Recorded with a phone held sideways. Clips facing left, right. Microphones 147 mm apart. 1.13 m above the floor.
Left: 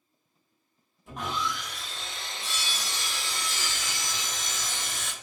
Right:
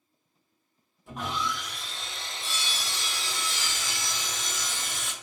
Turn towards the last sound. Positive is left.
turn(degrees=0)  # may be behind; listen again after turning